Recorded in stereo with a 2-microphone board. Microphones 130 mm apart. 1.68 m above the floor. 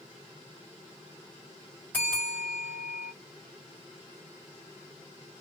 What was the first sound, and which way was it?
A bell, 15° left (ahead or behind).